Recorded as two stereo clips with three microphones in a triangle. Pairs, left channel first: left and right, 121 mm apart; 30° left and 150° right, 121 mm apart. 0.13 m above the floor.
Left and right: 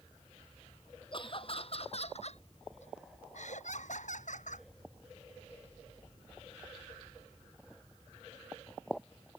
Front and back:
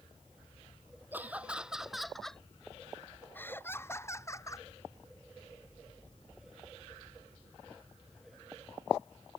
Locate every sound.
1.1 s laughter: 135° left; by 4.7 s 95° left